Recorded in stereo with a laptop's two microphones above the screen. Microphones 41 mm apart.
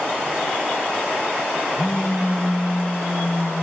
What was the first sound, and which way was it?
A phone buzzing, 75° left (ahead or behind).